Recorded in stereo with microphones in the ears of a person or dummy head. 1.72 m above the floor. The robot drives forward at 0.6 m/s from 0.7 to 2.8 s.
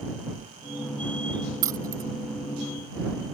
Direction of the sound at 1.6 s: 15° right (ahead or behind).